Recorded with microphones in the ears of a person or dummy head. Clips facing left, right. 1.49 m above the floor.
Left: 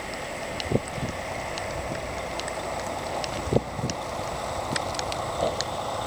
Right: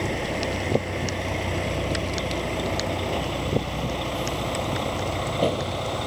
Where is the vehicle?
55° right (ahead or behind); by 6.1 s 35° right (ahead or behind).